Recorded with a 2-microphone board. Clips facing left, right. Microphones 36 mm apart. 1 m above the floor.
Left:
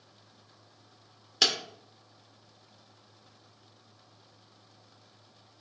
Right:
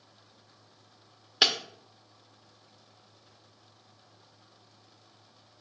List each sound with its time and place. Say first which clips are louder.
1.4 s breaking glass: right 2 dB; 15° right (ahead or behind), 0.8 m